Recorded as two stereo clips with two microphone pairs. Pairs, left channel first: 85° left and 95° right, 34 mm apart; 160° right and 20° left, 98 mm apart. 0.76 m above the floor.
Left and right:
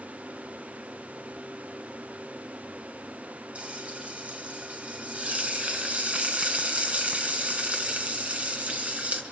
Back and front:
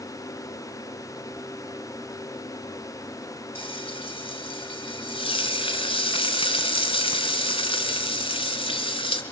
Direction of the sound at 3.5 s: 140° right.